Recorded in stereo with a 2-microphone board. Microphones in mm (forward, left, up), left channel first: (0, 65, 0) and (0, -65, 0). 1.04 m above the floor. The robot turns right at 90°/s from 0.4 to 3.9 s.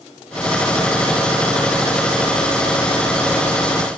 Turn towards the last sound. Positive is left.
No sound to turn to.